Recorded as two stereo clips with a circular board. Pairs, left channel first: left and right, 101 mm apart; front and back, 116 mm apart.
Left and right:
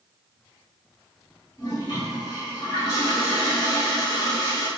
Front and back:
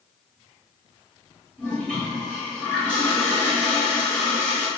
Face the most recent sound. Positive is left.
turn(degrees=75)